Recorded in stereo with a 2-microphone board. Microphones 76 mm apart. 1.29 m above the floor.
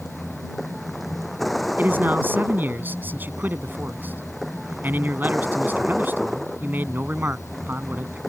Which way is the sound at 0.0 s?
Centre (ahead or behind).